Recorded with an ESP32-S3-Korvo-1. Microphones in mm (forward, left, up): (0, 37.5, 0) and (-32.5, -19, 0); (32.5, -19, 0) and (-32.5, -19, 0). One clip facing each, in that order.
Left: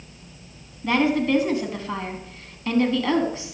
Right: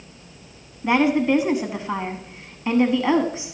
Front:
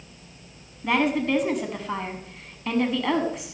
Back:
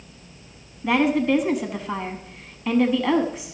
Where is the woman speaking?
95° right, 1.1 m.